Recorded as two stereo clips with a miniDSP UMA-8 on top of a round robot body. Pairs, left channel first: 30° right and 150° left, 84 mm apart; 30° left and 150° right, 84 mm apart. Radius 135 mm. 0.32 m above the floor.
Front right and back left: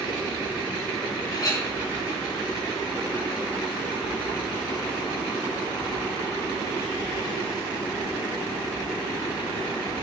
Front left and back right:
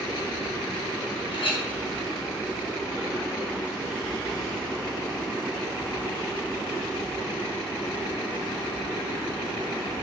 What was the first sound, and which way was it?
A clink, 15° left.